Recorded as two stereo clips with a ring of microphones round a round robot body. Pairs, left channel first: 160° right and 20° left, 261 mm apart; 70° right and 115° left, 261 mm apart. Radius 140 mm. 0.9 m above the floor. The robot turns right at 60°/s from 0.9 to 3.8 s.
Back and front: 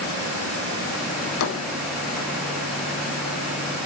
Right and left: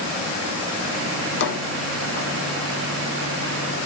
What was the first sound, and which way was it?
A drawer, 130° right.